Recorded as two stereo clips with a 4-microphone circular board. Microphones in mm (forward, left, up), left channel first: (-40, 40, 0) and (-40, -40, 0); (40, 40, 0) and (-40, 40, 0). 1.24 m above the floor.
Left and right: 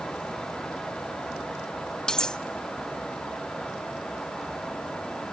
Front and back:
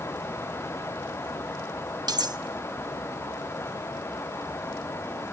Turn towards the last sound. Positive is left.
turn(degrees=170)